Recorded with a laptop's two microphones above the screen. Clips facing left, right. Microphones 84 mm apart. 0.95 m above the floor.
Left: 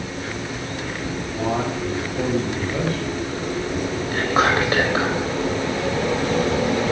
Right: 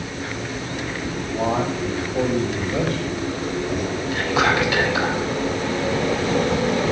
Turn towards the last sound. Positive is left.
turn(degrees=40)  # may be behind; listen again after turning